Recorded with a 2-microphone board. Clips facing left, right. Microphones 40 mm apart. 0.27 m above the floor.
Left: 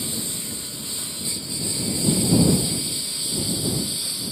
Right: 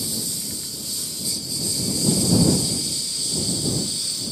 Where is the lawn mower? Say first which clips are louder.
Even; 30° left (ahead or behind); by 4.3 s 15° left (ahead or behind).